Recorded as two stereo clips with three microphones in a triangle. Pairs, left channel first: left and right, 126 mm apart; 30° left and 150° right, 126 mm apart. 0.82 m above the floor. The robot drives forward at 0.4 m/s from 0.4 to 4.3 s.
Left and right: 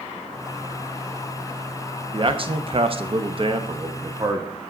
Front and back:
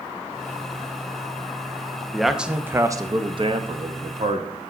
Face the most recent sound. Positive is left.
turn(degrees=-145)